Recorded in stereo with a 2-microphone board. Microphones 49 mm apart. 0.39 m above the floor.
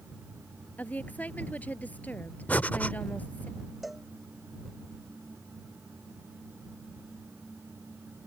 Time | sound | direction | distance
0.8 | a woman speaking | 30° left (ahead or behind) | ?
2.5 | breathing | 35° left (ahead or behind) | ?
3.8 | a cowbell | centre (ahead or behind) | ?